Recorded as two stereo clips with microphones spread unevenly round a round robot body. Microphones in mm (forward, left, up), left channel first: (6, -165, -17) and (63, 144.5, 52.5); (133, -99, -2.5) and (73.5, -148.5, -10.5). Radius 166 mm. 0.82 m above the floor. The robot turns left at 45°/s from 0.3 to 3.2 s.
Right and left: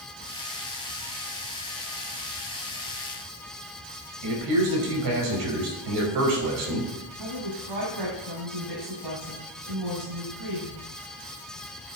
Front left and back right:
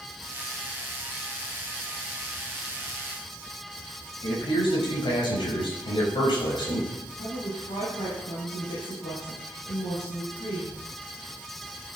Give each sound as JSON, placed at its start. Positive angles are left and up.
{"t": 4.2, "sound": "a man speaking", "azimuth_deg": 55, "distance_m": 6.0}
{"t": 7.2, "sound": "a woman speaking", "azimuth_deg": 70, "distance_m": 5.0}